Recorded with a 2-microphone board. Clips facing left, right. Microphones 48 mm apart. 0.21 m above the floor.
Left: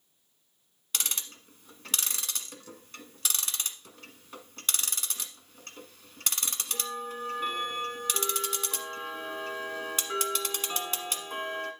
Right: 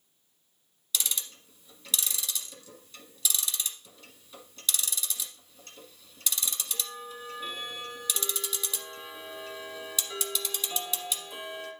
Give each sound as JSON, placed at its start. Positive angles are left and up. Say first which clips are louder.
{"t": 0.9, "sound": "ticking", "louder": "right 1 dB", "side_deg": 55, "distance_m": 1.2}